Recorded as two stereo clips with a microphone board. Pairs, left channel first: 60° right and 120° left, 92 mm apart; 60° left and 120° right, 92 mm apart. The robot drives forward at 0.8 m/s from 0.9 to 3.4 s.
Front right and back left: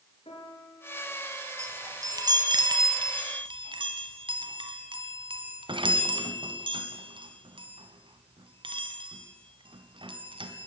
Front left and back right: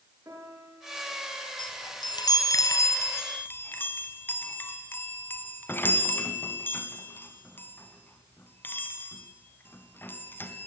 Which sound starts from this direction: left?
A chime, at 1.6 s.